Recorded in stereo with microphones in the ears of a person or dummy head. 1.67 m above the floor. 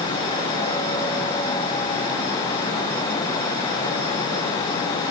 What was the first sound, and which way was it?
Only background noise.